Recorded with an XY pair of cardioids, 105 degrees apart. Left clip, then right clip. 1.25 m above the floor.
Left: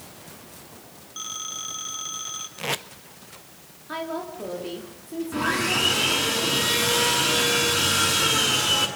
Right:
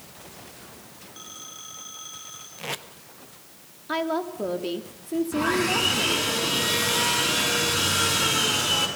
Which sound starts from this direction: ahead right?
A woman speaking, at 3.9 s.